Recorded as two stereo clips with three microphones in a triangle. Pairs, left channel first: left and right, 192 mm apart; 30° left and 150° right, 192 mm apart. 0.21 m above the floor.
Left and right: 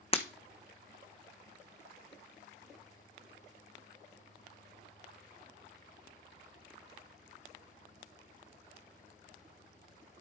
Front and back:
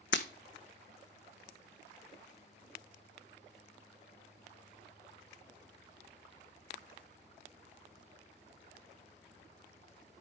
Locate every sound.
0.1 s breaking glass: 30° left, 0.9 m